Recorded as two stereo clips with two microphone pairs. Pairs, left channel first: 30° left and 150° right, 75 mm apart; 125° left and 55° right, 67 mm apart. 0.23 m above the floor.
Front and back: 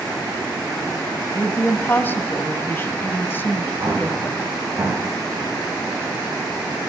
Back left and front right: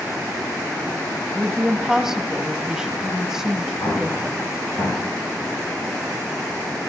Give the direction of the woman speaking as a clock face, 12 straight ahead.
11 o'clock.